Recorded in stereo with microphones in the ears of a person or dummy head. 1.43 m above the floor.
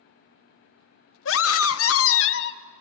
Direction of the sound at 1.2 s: 60° left (ahead or behind).